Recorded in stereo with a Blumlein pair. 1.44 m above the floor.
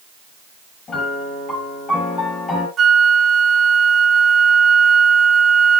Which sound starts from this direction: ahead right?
A flute, at 2.8 s.